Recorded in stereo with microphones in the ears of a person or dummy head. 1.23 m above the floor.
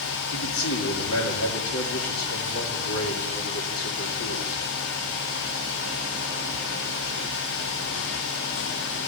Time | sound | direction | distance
0.3 | a man speaking | 75° left (ahead or behind) | 3 m